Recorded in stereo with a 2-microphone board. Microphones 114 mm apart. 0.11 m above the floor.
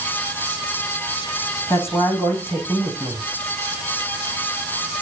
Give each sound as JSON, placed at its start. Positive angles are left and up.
{"t": 1.7, "sound": "a man speaking", "side_deg": 20, "distance_m": 6.5}